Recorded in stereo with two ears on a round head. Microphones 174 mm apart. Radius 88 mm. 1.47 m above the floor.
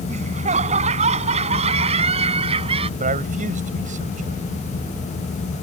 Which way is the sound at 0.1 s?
35° right (ahead or behind).